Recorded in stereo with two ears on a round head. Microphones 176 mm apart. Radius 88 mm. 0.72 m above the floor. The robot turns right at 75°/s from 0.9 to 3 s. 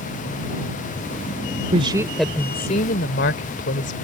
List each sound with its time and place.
1.7 s a woman speaking: 35° right; by 4.0 s 60° left